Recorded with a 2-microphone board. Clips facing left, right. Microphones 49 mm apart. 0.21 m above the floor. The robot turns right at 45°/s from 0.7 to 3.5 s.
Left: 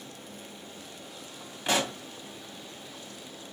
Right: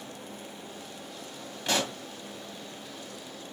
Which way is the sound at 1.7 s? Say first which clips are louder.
Left 1 dB; 15° left (ahead or behind).